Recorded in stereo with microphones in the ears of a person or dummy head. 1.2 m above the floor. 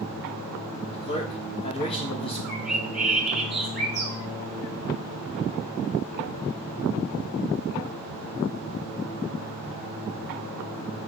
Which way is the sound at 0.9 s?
30° left (ahead or behind).